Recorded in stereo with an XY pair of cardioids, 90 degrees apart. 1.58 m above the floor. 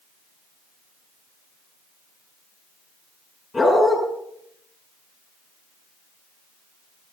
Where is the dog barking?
25° left, 7 m.